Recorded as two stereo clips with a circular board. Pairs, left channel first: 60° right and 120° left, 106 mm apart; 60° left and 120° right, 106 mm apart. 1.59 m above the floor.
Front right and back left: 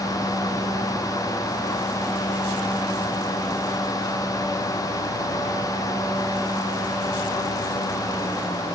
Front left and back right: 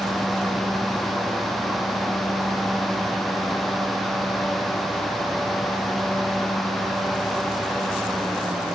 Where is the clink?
No clink in this recording.